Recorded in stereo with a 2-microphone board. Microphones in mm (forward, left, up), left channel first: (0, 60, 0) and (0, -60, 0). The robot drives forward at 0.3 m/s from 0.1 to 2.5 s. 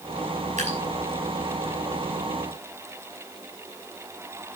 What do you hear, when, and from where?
0.6 s dripping: 80° right, 5.5 m